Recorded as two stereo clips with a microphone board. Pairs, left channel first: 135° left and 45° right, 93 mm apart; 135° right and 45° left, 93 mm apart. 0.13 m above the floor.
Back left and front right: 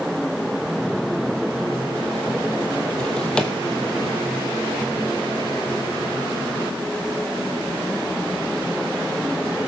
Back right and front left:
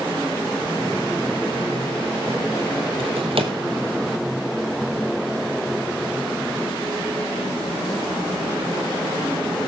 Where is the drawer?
55° left, 1.6 m.